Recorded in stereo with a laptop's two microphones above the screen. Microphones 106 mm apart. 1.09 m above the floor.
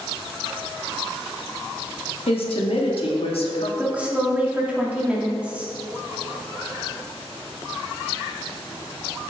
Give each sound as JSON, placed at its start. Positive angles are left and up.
{"t": 2.3, "sound": "a woman speaking", "side_deg": 65, "distance_m": 1.8}
{"t": 3.8, "sound": "a woman speaking", "side_deg": -10, "distance_m": 3.0}